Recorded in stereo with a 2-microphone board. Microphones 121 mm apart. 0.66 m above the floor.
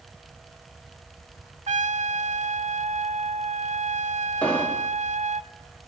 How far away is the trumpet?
About 0.5 m.